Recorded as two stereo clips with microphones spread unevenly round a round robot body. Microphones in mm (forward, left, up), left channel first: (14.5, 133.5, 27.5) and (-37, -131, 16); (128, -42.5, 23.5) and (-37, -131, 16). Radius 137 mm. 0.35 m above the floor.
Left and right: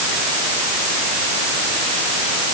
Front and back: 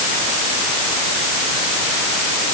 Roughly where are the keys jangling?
No keys jangling in this recording.